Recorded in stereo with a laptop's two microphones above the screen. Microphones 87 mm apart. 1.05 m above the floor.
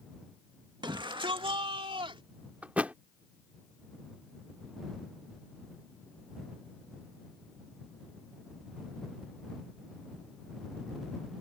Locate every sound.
0.8 s a shout: 60° right (ahead or behind); by 2.2 s 80° right
2.6 s a thud: 15° right (ahead or behind)